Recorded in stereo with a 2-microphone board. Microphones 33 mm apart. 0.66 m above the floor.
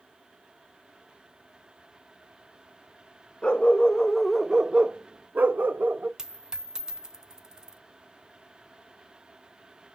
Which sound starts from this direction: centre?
A dropped coin, at 6.2 s.